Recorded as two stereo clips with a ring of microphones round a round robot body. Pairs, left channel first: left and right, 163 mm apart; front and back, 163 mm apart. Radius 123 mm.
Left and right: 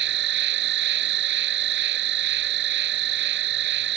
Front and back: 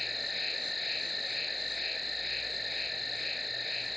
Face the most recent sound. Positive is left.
turn(degrees=-90)